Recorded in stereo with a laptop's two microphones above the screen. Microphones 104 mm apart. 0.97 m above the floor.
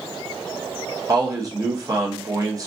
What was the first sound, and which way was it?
A man speaking, 35° right (ahead or behind).